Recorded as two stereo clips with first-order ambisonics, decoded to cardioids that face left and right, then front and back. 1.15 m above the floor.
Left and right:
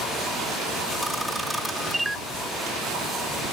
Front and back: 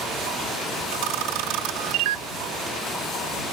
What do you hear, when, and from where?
0.9 s a camera shutter: 175° right